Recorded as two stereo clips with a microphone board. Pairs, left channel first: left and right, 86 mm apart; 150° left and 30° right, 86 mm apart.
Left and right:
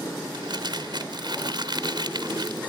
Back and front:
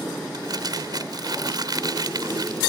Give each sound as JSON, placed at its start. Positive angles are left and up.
{"t": 0.3, "sound": "crumpling", "azimuth_deg": -65}